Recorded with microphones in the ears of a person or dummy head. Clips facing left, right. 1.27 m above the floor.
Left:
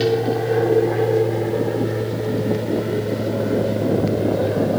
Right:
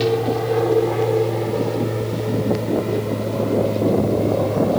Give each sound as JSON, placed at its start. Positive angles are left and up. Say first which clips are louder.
{"t": 0.0, "sound": "an aircraft", "louder": "even", "side_deg": 5}